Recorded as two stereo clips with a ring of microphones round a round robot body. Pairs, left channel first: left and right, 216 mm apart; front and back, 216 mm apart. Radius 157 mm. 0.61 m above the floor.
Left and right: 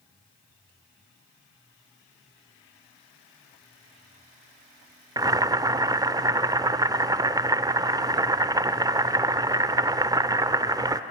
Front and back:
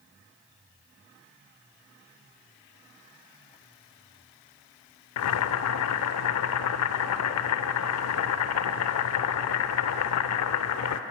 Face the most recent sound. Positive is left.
turn(degrees=-15)